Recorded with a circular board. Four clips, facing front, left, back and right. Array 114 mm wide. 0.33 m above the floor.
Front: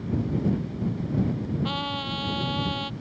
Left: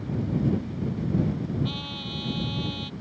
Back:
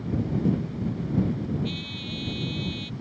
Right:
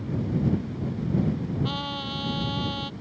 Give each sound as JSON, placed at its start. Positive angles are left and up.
{"t": 1.6, "sound": "a trumpet", "azimuth_deg": -25}